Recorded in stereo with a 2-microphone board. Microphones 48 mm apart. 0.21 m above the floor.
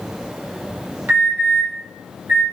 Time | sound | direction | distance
1.1 | an alarm | 40° right (ahead or behind) | 5 m